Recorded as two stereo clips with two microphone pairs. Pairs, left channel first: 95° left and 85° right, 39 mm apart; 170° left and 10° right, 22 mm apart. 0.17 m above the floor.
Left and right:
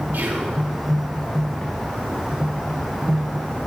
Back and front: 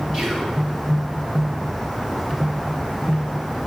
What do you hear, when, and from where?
0.1 s whispering: 55° right, 2.5 m